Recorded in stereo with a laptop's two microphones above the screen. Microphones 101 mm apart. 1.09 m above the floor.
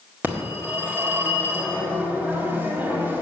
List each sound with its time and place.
0.2 s a phone ringing: 20° right (ahead or behind), 1.9 m